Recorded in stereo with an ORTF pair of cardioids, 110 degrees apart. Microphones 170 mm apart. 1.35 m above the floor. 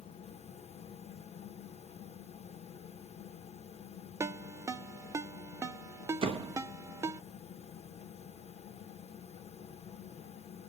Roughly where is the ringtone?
Ahead.